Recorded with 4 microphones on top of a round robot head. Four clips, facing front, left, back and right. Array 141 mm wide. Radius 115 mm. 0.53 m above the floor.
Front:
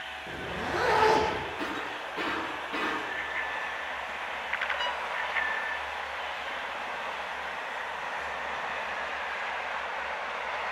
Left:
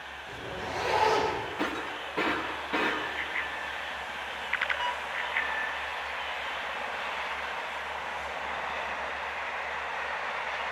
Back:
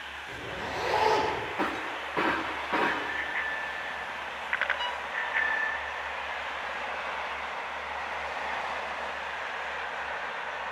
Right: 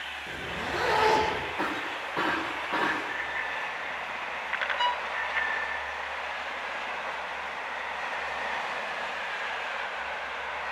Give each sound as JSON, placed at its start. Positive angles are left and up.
{"t": 0.3, "sound": "a zipper", "azimuth_deg": -40, "distance_m": 10.0}
{"t": 1.6, "sound": "breaking glass", "azimuth_deg": -145, "distance_m": 6.5}
{"t": 3.1, "sound": "a bicycle bell", "azimuth_deg": -160, "distance_m": 6.0}
{"t": 4.8, "sound": "a violin", "azimuth_deg": -75, "distance_m": 0.6}